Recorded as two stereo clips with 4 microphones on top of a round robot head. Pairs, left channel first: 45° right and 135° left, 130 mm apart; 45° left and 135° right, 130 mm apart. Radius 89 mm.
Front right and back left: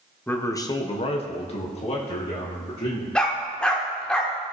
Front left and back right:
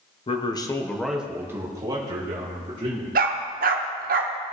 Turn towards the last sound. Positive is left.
turn(degrees=-130)